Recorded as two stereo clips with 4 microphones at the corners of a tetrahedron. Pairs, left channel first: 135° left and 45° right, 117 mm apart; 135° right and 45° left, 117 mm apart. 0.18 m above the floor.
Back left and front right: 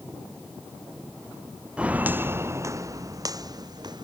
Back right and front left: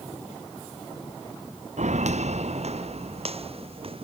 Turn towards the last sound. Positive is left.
turn(degrees=5)